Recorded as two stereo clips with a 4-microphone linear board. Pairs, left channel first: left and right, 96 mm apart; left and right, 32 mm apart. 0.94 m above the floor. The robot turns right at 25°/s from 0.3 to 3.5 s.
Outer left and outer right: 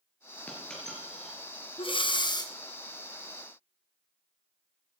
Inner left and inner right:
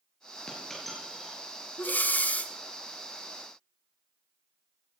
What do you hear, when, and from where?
0.5 s a dropped coin: 15° left (ahead or behind), 4.5 m; by 1.4 s 5° right (ahead or behind), 4.5 m
1.8 s breathing: 65° left (ahead or behind), 0.8 m; by 2.5 s 45° left (ahead or behind), 0.8 m